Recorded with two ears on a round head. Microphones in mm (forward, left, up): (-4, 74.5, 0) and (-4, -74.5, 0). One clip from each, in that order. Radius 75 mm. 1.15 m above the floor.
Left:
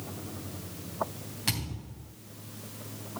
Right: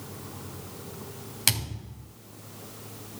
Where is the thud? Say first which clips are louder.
Right 6 dB; 75° right (ahead or behind), 3 m.